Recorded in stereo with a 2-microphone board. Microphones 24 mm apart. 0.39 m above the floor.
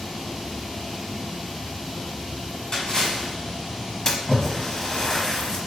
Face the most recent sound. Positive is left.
turn(degrees=25)  # may be behind; listen again after turning